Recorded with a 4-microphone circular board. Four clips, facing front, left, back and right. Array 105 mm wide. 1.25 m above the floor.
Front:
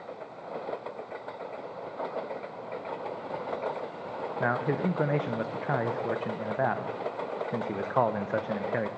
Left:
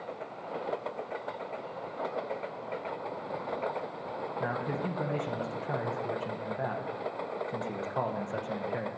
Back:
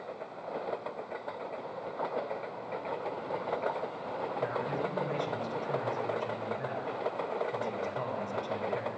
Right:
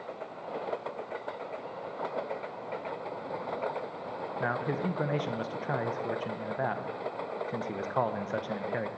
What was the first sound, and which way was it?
A man speaking, 15° right.